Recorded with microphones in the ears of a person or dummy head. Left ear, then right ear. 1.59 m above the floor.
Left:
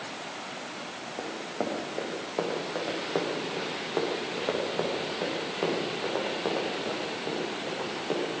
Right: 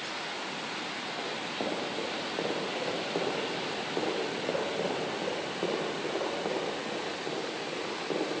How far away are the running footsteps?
About 5 m.